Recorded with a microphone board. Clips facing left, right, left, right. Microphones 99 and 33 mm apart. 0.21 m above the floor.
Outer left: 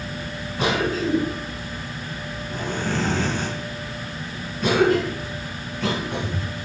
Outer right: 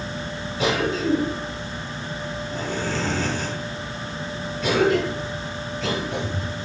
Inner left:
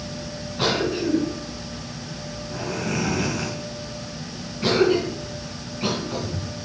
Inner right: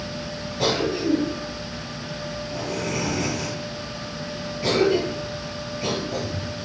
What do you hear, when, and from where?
0.6 s a cough: 55° left (ahead or behind), 2.5 m